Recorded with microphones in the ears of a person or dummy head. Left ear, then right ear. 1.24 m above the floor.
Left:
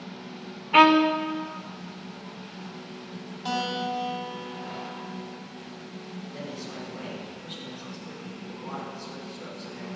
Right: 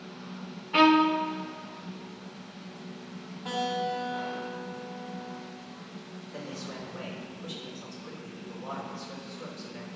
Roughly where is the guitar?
Left.